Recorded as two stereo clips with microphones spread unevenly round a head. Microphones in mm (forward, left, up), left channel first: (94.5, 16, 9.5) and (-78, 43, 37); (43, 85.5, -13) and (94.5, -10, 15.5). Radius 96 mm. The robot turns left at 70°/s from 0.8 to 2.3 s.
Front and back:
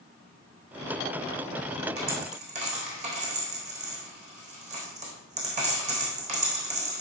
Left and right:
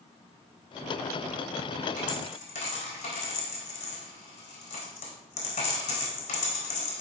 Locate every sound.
2.0 s a dropped coin: 150° left, 4 m; by 7.0 s 125° left, 4 m